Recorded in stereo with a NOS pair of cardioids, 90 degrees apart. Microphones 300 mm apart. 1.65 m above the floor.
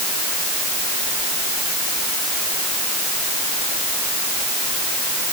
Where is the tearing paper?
No tearing paper in this recording.